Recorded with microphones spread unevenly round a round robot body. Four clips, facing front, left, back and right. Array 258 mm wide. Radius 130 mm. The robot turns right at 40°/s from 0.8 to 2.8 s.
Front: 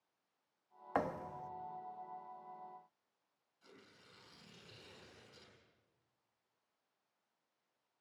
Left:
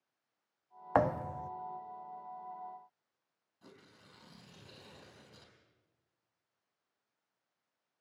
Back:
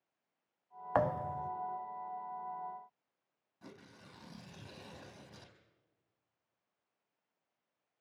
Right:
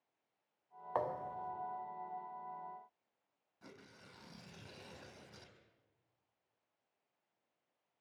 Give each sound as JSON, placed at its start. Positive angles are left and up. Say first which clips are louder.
{"t": 0.9, "sound": "a thud", "louder": "left 8 dB, back 6 dB", "azimuth_deg": 100, "distance_m": 0.5}
{"t": 3.6, "sound": "tearing paper", "louder": "right 1 dB, back 8 dB", "azimuth_deg": -170, "distance_m": 4.0}